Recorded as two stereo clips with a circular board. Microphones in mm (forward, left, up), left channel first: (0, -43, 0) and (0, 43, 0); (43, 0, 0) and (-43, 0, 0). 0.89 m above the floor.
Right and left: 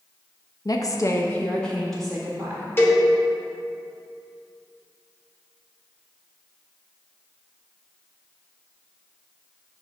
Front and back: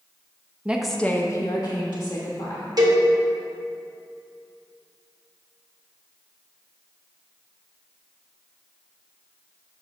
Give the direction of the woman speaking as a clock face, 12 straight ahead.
4 o'clock.